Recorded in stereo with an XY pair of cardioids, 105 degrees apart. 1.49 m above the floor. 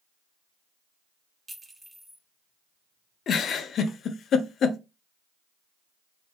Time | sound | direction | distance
1.5 | a clink | 25° right | 2.5 m
3.3 | a giggle | 60° left | 0.6 m